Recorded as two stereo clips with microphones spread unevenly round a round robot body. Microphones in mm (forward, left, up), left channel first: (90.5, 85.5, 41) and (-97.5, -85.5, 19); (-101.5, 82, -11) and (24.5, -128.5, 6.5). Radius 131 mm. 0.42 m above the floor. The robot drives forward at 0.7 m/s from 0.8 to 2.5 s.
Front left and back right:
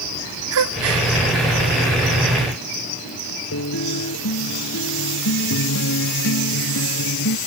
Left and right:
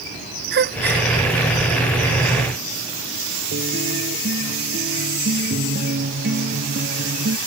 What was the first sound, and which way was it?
A gasp, 105° right.